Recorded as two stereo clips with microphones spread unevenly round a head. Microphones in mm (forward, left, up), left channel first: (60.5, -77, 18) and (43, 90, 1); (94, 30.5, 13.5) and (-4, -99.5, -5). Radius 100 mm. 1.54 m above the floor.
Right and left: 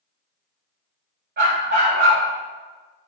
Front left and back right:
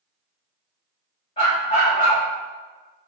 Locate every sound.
1.4 s a dog barking: 95° left, 2 m